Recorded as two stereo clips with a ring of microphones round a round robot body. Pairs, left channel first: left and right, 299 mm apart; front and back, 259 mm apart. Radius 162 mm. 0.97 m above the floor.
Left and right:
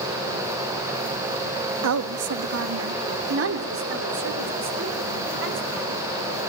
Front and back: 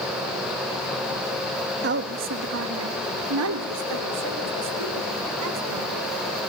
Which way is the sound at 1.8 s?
125° right.